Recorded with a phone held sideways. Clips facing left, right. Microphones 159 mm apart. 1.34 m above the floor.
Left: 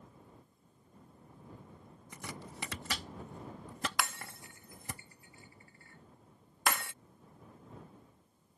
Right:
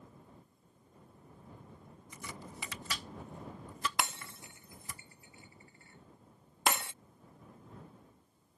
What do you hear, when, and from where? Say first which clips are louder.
2.1 s chopping: left 1 dB; 70° left (ahead or behind)
4.0 s breaking glass: right 1 dB; 20° right (ahead or behind)